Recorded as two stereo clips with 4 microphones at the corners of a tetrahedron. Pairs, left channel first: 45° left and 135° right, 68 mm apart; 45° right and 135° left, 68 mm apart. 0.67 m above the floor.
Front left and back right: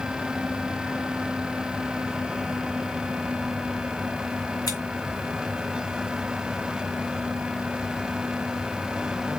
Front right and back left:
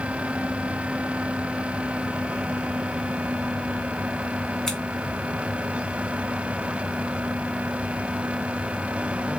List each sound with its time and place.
4.7 s scissors: 35° left, 2 m